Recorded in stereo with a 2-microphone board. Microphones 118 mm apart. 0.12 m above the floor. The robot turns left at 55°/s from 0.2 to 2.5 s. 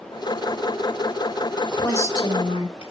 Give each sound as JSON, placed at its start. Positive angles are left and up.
{"t": 1.7, "sound": "a woman speaking", "azimuth_deg": 165, "distance_m": 4.0}